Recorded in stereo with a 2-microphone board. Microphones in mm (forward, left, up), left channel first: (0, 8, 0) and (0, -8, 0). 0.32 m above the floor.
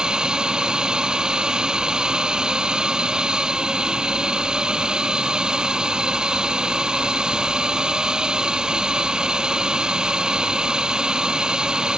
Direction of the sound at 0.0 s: 65° right (ahead or behind).